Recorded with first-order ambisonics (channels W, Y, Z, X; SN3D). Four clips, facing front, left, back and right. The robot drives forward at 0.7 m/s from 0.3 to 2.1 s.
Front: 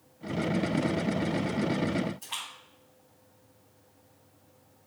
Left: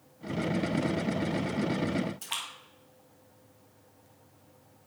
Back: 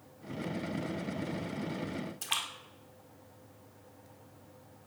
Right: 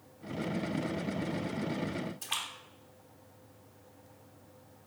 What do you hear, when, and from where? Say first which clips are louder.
2.2 s a splash: even, back 3 dB; 160° left, 1.7 m